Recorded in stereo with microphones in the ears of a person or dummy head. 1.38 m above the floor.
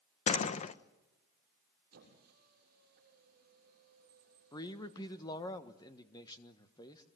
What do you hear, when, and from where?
0.3 s a door slam: 40° left (ahead or behind), 0.7 m
1.9 s a squeak: 55° right (ahead or behind), 6.5 m
4.5 s a man speaking: 20° left (ahead or behind), 1.3 m